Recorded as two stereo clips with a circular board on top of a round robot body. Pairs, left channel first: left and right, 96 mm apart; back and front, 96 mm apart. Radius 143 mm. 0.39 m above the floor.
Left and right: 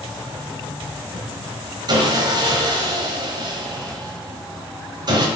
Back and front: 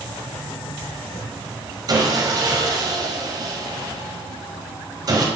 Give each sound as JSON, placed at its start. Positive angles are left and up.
{"t": 1.9, "sound": "sawing", "azimuth_deg": -45, "distance_m": 1.3}